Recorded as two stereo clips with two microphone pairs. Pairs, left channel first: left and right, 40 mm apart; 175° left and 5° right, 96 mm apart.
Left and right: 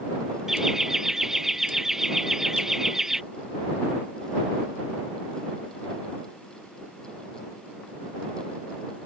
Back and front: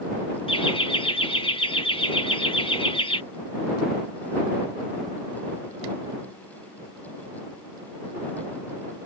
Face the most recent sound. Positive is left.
turn(degrees=-165)